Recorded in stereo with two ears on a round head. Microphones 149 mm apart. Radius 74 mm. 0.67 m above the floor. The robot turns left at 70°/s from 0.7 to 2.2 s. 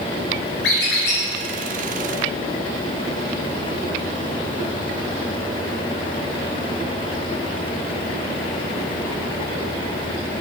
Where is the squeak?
100° left, 1.8 m; by 1.2 s 60° left, 1.8 m.